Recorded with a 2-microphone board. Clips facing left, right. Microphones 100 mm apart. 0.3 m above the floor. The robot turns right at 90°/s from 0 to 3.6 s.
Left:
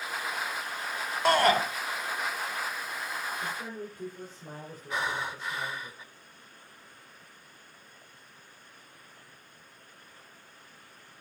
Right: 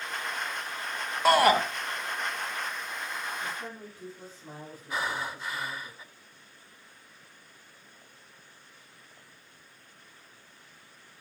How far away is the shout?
About 0.9 m.